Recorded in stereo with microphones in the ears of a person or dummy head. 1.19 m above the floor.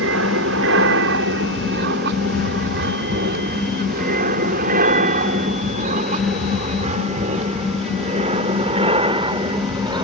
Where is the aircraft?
65° right (ahead or behind); by 10.0 s 20° right (ahead or behind).